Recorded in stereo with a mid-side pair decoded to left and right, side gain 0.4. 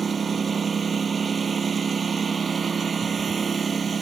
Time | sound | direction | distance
0.0 | a lawn mower | 40° right | ?